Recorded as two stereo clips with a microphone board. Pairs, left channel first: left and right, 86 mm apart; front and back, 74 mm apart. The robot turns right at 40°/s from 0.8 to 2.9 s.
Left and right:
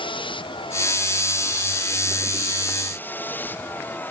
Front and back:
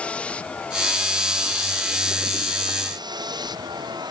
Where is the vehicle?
75° left; by 4.1 s 160° left.